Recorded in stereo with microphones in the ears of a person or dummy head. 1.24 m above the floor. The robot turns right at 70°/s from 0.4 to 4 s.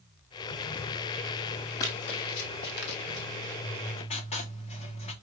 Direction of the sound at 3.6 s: 55° left (ahead or behind).